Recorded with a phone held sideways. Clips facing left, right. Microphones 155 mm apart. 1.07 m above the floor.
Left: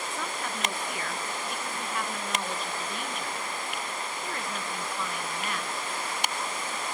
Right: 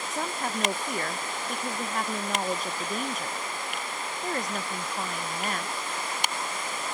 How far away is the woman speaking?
About 0.8 m.